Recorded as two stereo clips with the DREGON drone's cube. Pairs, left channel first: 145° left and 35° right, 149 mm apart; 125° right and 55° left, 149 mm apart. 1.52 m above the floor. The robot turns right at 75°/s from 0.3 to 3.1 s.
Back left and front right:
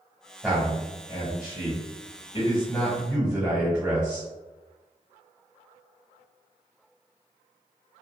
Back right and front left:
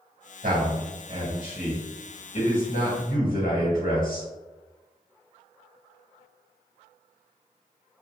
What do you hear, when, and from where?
0.4 s a man speaking: 45° left, 1.4 m; by 4.3 s 115° right, 1.4 m